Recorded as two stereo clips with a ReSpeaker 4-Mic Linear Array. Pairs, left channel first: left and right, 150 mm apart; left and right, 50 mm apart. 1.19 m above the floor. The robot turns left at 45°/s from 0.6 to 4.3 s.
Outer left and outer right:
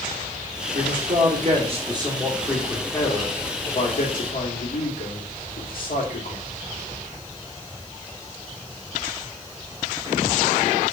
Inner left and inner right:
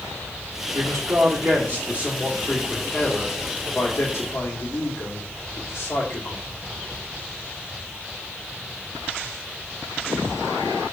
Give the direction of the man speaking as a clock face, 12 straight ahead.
3 o'clock.